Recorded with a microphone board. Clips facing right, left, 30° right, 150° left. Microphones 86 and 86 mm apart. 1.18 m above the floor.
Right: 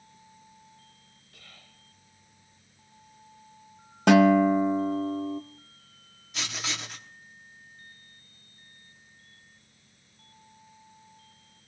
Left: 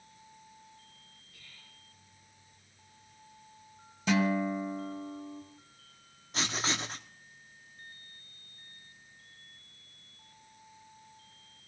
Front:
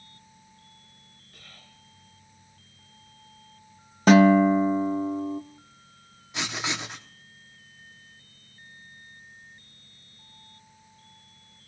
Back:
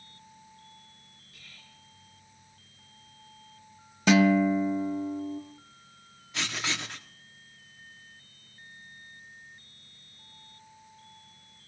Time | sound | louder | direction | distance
1.3 | whispering | right 5 dB, front 3 dB | 60° right | 1.2 m
4.1 | a guitar | right 11 dB, front 5 dB | 75° right | 0.7 m
6.3 | writing | left 3 dB, front 2 dB | 40° left | 1.1 m